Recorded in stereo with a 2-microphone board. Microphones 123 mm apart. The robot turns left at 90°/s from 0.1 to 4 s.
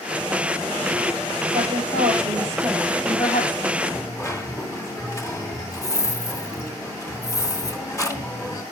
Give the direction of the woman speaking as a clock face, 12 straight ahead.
2 o'clock.